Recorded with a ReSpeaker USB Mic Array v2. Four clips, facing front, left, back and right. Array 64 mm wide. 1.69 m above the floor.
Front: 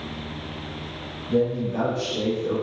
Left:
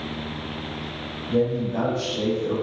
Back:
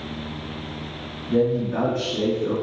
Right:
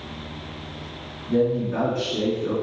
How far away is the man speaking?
About 3.5 m.